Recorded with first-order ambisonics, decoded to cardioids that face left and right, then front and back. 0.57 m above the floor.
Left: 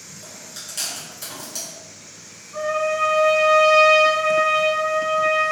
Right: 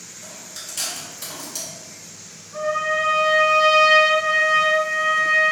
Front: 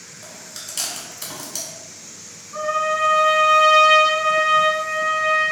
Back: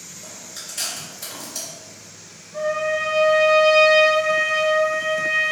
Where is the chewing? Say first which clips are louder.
Right 1 dB, front 1 dB; 5° left, 1.7 m.